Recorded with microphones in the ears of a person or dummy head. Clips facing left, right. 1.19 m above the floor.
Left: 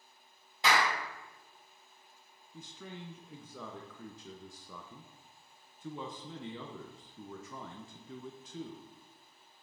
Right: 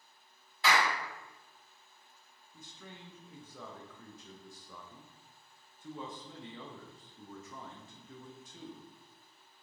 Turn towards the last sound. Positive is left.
turn(degrees=60)  # may be behind; listen again after turning